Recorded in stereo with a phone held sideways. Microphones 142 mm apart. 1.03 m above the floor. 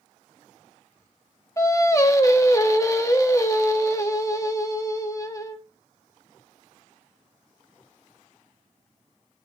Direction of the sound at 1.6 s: 25° left (ahead or behind).